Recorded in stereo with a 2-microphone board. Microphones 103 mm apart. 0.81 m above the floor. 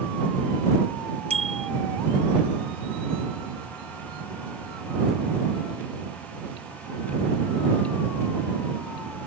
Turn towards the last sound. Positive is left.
turn(degrees=-85)